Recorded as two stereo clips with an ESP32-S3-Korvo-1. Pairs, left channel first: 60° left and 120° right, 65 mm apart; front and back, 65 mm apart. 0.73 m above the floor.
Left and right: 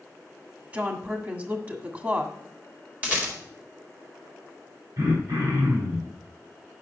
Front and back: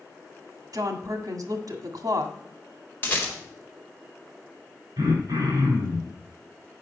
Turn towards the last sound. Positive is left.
turn(degrees=-150)